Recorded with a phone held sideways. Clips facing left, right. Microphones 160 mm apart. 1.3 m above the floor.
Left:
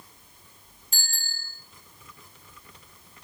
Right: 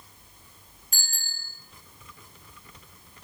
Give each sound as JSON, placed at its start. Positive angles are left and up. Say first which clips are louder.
{"t": 0.9, "sound": "a bicycle bell", "louder": "left 2 dB", "side_deg": 30, "distance_m": 8.0}